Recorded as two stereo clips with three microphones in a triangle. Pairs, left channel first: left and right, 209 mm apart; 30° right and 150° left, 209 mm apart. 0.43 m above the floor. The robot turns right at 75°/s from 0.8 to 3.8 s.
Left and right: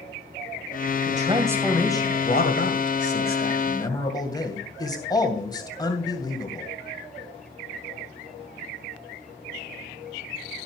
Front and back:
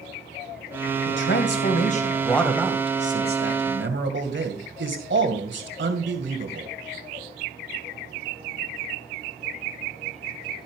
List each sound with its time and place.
1.1 s a man speaking: 45° right, 2.5 m; by 6.7 s 160° left, 2.5 m